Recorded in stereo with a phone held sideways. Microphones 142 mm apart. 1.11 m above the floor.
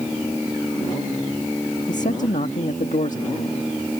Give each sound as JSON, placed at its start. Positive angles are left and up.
{"t": 1.9, "sound": "a man speaking", "side_deg": 60}